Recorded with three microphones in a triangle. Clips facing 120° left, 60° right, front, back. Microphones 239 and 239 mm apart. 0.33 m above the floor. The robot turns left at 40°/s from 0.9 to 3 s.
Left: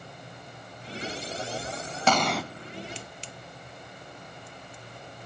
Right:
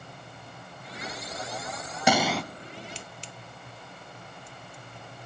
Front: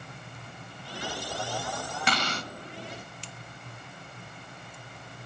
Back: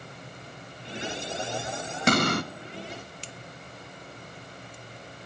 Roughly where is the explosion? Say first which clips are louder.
Right 1 dB, back 11 dB; behind right.